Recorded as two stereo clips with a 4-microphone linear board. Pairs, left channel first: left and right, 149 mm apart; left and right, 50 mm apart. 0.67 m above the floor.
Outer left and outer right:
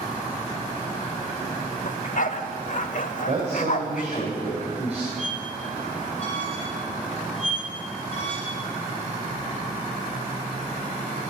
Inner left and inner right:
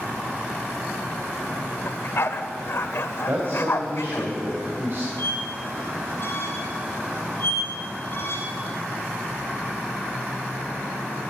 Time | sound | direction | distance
1.9 | a dog barking | 60° left (ahead or behind) | 0.8 m
3.3 | a man speaking | 45° right (ahead or behind) | 3 m
5.2 | a squeak | 45° left (ahead or behind) | 3.5 m